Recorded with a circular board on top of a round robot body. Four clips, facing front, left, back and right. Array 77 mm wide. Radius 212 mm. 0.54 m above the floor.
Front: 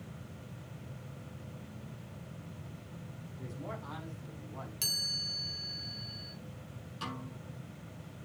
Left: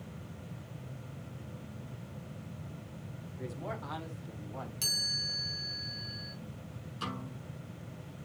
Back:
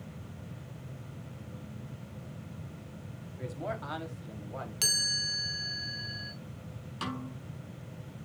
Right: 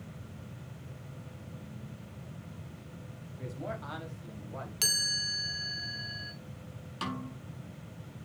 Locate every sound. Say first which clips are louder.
3.4 s a man speaking: right 1 dB, back 6 dB; 170° right, 5 m; by 4.7 s 160° right, 4.5 m
4.8 s a chime: right 4 dB, back 7 dB; 130° right, 1.3 m
7.0 s a snare drum: right 3 dB, back 4 dB; 130° right, 5 m